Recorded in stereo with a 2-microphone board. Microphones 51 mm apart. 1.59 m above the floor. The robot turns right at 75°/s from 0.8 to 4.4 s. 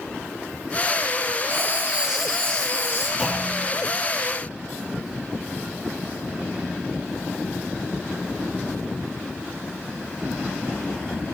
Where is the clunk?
170° right, 3 m; by 3.7 s 130° right, 3 m.